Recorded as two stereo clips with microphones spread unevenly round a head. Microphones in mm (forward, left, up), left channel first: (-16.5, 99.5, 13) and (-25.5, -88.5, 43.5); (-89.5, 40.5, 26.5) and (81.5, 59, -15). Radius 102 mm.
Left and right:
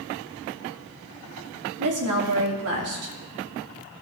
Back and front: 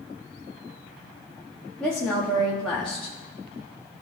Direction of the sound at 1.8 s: 85° right.